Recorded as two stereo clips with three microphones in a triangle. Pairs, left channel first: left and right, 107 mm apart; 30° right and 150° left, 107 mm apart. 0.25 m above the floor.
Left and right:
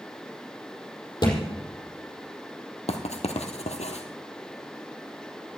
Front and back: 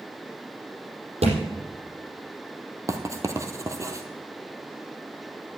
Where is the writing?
90° left, 1.5 m.